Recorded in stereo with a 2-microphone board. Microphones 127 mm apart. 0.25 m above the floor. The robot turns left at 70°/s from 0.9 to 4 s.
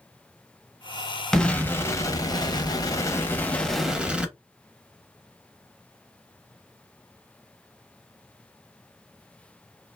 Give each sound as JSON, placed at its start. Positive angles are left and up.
{"t": 1.3, "sound": "an explosion", "azimuth_deg": 175, "distance_m": 0.7}